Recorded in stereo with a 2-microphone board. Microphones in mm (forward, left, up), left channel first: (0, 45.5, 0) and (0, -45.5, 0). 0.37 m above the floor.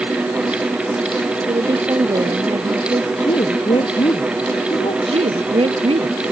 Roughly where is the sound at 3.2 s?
Left.